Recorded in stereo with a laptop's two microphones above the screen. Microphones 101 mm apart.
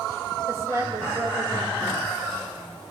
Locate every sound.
0.5 s a woman speaking: 30° right (ahead or behind), 6 m